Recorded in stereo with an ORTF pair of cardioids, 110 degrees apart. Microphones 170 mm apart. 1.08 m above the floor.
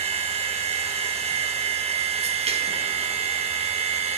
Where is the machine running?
40° right, 0.8 m.